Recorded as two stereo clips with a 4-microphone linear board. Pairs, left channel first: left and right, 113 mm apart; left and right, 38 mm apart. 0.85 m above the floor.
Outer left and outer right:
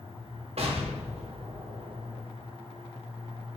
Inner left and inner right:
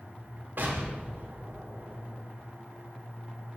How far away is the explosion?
About 0.6 m.